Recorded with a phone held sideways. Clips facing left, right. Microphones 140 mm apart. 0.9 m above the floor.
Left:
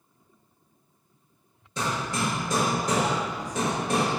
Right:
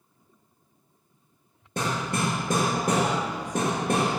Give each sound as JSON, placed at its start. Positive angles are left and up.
{"t": 1.8, "sound": "hammering", "side_deg": -50, "distance_m": 1.0}